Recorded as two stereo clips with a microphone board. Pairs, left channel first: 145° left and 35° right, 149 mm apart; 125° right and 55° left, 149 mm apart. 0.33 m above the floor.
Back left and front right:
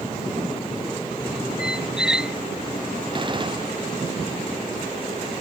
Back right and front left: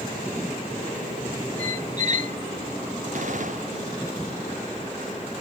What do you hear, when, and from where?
1.6 s a squeak: 50° left
3.1 s a gunshot: 25° left